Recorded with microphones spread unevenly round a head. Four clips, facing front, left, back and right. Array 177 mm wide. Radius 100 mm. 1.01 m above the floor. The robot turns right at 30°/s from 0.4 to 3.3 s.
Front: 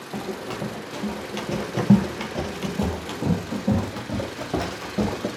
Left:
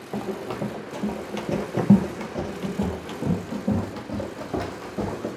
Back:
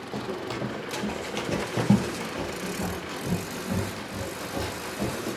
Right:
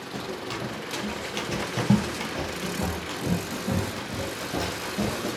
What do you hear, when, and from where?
0.1 s running footsteps: 85° left, 1.6 m; by 5.3 s 10° left, 2.5 m